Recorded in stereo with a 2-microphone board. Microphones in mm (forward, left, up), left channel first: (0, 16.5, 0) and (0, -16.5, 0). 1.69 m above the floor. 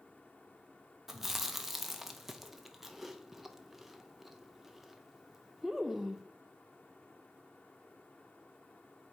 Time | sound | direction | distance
1.1 | chewing | 5° right (ahead or behind) | 0.6 m